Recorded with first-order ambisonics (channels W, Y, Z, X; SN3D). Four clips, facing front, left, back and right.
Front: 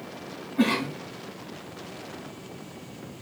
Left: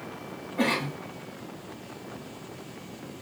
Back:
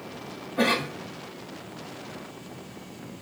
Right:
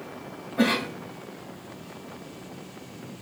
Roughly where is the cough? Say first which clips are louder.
Right 3 dB, even; behind right.